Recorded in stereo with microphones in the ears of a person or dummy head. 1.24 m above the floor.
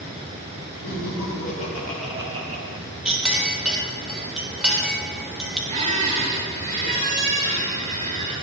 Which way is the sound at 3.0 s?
5° right (ahead or behind).